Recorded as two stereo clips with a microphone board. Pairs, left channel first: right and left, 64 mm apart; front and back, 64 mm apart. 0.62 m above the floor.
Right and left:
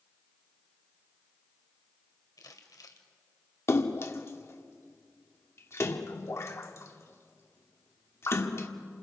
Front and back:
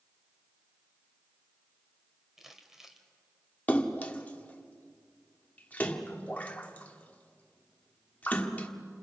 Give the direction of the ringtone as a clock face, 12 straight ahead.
No ringtone in this recording.